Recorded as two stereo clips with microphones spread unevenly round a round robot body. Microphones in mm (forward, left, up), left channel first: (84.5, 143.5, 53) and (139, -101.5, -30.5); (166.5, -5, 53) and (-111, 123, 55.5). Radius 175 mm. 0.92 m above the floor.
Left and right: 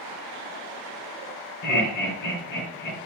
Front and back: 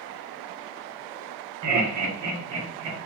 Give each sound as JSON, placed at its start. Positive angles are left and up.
{"t": 1.6, "sound": "laughter", "azimuth_deg": 125, "distance_m": 2.5}